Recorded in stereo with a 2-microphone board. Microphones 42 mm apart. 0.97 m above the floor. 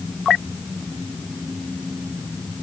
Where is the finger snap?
No finger snap in this recording.